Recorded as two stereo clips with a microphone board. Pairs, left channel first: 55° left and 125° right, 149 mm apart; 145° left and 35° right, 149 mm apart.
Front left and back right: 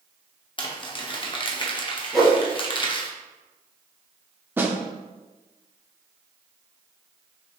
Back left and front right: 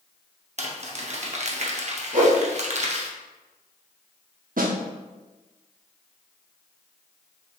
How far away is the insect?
I don't hear an insect.